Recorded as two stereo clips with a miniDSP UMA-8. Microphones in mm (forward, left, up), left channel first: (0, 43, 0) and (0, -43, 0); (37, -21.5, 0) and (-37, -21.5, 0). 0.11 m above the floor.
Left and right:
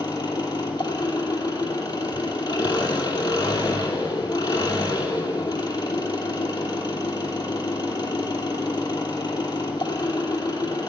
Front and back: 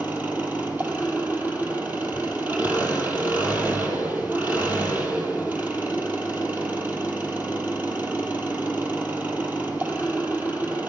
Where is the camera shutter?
No camera shutter in this recording.